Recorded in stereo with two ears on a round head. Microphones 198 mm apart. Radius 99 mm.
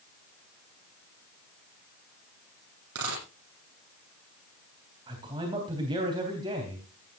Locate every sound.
3.0 s a dropped coin: 75° right (ahead or behind), 9.5 m
5.1 s a man speaking: 25° right (ahead or behind), 3 m